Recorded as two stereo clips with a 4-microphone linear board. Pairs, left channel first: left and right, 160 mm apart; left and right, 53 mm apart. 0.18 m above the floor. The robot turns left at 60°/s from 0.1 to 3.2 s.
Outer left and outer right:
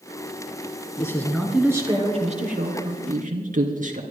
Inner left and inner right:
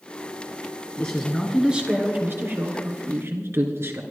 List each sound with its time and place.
1.0 s a man speaking: 25° left, 3 m; by 4.0 s 110° right, 3 m